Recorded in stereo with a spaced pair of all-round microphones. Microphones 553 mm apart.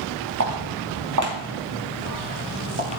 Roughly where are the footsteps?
Right.